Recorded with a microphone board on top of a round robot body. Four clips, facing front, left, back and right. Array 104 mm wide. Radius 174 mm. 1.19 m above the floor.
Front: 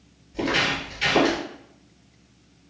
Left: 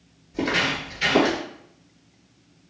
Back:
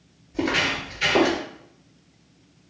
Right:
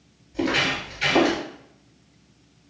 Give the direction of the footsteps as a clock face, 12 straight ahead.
8 o'clock.